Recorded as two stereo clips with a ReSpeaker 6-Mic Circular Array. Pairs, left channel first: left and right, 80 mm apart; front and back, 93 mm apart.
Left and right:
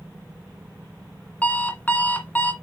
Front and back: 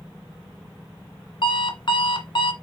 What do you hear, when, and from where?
1.4 s an alarm clock: 20° left, 1.4 m